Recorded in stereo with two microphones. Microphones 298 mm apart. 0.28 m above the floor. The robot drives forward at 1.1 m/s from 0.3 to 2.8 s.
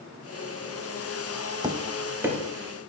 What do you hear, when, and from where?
1.6 s tapping: 15° right (ahead or behind), 0.6 m; by 2.4 s 5° right (ahead or behind), 1.4 m